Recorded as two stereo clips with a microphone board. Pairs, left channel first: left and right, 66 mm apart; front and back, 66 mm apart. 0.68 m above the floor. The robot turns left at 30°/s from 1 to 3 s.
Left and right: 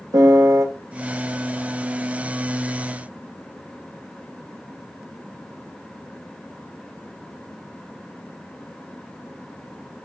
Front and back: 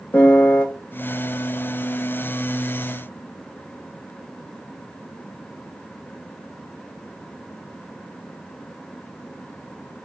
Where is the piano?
65° right, 0.6 m.